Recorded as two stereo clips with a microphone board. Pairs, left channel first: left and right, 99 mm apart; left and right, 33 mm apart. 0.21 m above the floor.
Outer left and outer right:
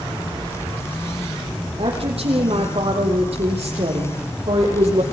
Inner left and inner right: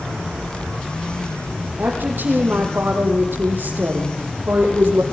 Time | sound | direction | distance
1.8 | a woman speaking | 80° right | 7.5 m